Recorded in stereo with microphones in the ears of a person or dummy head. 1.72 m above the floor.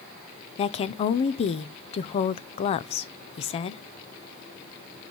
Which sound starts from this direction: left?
A woman speaking, at 0.6 s.